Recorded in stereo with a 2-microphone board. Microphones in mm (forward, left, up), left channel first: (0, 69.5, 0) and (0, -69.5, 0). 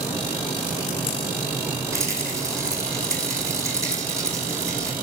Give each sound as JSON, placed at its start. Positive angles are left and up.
{"t": 1.9, "sound": "a rattle", "side_deg": -20, "distance_m": 1.8}